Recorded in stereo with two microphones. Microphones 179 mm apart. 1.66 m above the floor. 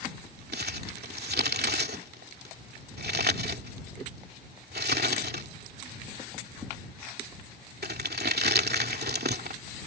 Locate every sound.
0.5 s crumpling: 65° right (ahead or behind)